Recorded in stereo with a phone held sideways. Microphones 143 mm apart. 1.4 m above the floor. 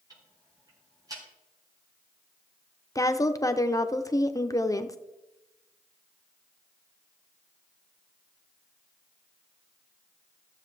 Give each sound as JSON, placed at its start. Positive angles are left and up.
{"t": 0.1, "sound": "ticking", "side_deg": -25, "distance_m": 4.5}
{"t": 3.0, "sound": "a woman speaking", "side_deg": 25, "distance_m": 0.7}